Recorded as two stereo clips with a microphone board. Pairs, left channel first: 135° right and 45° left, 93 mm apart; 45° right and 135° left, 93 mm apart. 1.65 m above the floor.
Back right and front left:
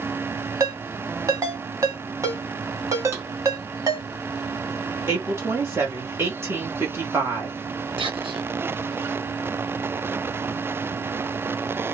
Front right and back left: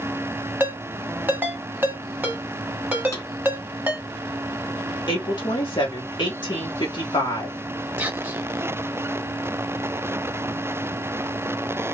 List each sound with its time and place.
0.6 s a ringtone: 75° left, 1.3 m
3.1 s a drawer: straight ahead, 1.5 m
5.1 s a woman speaking: 15° right, 1.5 m
8.0 s whispering: 65° left, 1.3 m